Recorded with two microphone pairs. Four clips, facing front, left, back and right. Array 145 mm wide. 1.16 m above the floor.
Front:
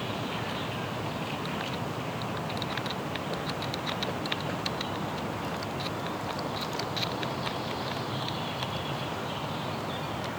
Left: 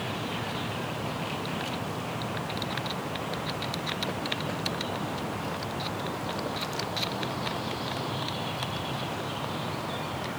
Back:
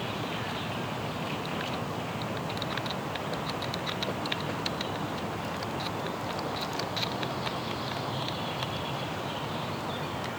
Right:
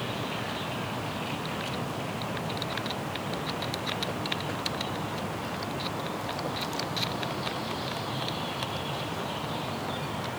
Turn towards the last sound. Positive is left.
No sound to turn to.